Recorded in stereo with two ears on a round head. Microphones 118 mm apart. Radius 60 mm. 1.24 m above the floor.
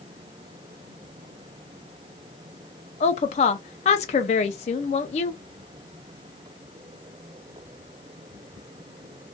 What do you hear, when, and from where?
3.0 s a woman speaking: 50° left (ahead or behind), 0.5 m